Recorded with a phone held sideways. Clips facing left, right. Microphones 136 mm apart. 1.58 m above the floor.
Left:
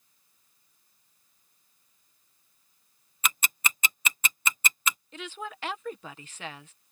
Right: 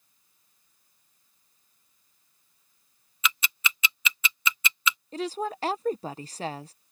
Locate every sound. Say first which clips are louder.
3.2 s ticking: right 1 dB; 45° left (ahead or behind)
5.1 s a woman speaking: right 9 dB; 35° right (ahead or behind)